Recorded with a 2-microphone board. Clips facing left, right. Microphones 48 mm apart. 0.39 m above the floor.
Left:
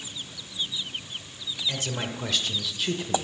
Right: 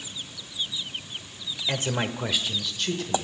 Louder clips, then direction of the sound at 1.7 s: Right 5 dB; 40° right (ahead or behind).